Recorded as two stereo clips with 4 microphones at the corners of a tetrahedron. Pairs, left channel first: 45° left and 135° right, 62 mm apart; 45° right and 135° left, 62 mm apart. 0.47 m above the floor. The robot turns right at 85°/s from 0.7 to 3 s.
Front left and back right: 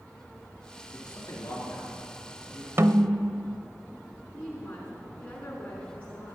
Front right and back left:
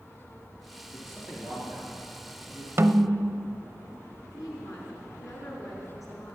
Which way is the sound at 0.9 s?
30° left.